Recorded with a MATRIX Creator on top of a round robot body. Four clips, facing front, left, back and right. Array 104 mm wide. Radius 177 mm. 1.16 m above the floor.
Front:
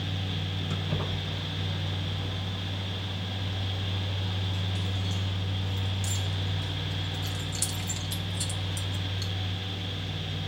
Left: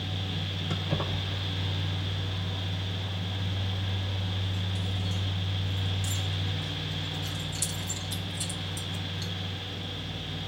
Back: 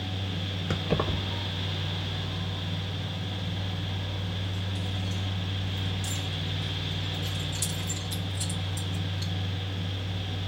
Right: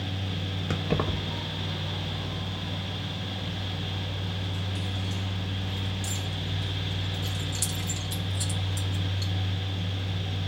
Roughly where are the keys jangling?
Behind right.